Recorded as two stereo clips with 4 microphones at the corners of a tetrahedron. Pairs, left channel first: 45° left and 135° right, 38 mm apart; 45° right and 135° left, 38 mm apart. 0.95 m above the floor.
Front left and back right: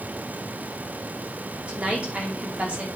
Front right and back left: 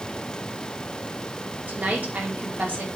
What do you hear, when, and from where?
1.7 s a woman speaking: 170° left, 2.5 m